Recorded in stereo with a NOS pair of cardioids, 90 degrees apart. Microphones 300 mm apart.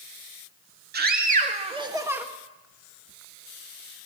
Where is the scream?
35° right, 2.5 m; by 2.2 s 5° right, 1.8 m.